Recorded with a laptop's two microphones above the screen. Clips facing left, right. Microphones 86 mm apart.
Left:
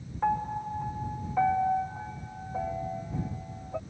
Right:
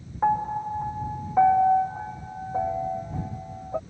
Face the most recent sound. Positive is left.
turn(degrees=-25)  # may be behind; listen again after turning